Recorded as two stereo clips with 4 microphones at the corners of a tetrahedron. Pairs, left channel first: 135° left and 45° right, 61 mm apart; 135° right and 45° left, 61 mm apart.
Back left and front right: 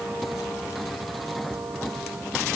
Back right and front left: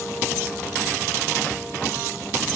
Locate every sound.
Only background noise.